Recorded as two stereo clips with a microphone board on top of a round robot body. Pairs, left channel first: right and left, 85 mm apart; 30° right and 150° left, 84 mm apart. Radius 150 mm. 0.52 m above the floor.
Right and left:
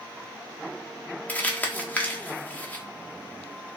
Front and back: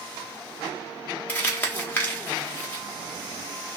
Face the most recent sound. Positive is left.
turn(degrees=-55)